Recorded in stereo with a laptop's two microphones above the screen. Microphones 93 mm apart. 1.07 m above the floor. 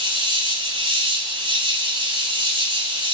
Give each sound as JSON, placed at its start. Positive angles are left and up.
{"t": 0.0, "sound": "an insect", "side_deg": -80, "distance_m": 4.5}